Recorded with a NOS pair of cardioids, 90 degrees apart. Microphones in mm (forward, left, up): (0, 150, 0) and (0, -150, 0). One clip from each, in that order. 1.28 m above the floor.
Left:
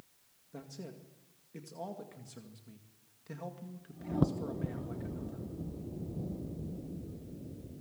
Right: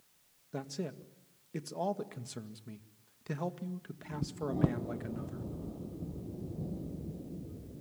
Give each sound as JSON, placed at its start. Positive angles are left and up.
{"t": 0.5, "sound": "a man speaking", "azimuth_deg": -55, "distance_m": 1.9}